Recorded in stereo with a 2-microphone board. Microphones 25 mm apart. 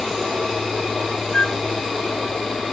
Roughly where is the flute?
Left.